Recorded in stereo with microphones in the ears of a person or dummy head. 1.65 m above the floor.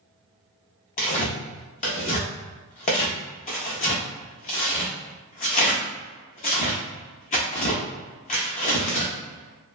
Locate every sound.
1.0 s tearing paper: 45° left (ahead or behind), 0.6 m